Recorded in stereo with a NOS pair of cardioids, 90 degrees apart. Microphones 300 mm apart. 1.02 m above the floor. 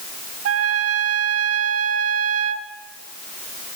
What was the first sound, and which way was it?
A trumpet, 55° right.